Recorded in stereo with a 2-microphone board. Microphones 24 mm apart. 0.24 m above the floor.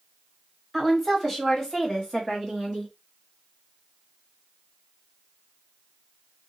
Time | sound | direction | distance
0.7 | a woman speaking | 10° left (ahead or behind) | 1.2 m